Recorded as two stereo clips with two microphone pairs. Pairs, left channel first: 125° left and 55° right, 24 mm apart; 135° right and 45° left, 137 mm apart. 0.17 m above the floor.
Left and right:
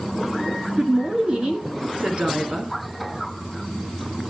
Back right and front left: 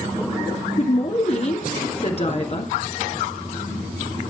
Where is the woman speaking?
100° right, 2.5 m.